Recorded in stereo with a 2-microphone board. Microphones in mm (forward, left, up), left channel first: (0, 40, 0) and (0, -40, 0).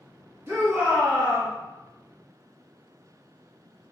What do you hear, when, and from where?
0.5 s a shout: 35° right (ahead or behind), 1.6 m